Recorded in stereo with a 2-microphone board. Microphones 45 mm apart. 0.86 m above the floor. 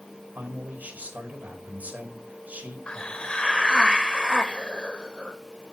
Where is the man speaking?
40° right (ahead or behind), 4.5 m.